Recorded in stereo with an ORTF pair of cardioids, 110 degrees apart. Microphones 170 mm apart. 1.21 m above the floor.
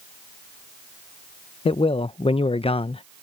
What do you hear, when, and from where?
1.6 s a man speaking: 35° left